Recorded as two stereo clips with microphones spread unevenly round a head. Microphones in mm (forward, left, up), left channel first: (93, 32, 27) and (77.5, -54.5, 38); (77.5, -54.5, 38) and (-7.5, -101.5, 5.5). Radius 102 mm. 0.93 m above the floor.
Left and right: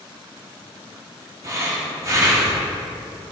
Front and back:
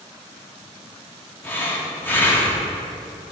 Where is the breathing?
45° right, 1.5 m.